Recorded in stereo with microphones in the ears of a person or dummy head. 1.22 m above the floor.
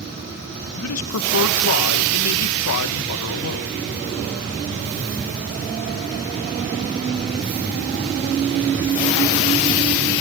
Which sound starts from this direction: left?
A man speaking, at 0.8 s.